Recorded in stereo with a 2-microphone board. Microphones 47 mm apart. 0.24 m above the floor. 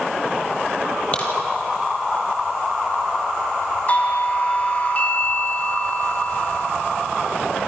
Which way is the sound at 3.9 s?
35° left (ahead or behind).